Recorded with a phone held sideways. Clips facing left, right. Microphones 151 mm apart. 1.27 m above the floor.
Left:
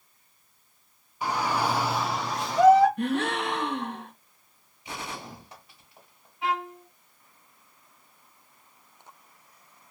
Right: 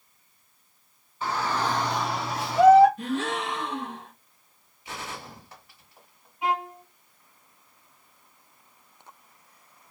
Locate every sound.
1.2 s a shout: 15° left (ahead or behind), 0.8 m; by 2.9 s 10° right (ahead or behind), 0.9 m
3.0 s a gasp: 65° left (ahead or behind), 0.9 m
4.8 s a gunshot: 20° left (ahead or behind), 1.5 m
6.4 s a violin: 15° right (ahead or behind), 0.8 m